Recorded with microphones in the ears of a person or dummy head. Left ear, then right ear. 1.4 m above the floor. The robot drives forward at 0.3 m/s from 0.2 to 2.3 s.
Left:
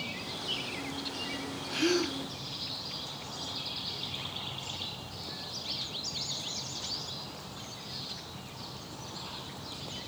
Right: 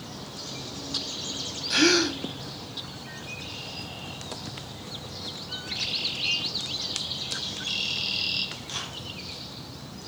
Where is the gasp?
55° right (ahead or behind), 0.7 m; by 2.2 s 60° right (ahead or behind), 0.6 m.